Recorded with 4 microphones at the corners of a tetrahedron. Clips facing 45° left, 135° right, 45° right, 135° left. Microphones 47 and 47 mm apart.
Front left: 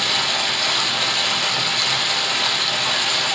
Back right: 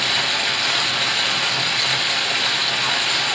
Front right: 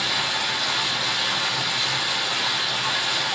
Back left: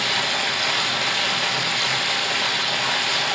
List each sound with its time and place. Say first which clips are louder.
0.0 s running water: even, back left 2 dB; 150° left, 2 m